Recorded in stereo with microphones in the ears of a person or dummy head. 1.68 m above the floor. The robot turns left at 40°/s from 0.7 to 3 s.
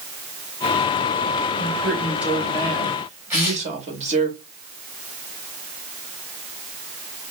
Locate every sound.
1.6 s a woman speaking: 20° left, 1.8 m; by 4.3 s 40° right, 1.8 m
3.3 s tearing paper: 10° right (ahead or behind), 2 m